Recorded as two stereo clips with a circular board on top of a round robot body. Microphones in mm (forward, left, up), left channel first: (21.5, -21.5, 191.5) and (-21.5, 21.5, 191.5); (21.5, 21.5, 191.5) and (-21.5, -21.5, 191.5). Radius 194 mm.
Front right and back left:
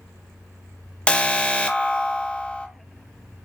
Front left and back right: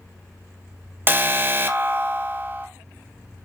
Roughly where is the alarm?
Right.